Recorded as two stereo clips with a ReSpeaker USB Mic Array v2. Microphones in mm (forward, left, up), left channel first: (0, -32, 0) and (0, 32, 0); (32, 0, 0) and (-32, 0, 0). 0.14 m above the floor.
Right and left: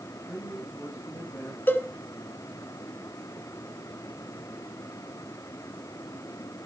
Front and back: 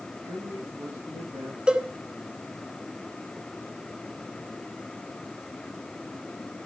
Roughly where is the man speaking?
Behind right.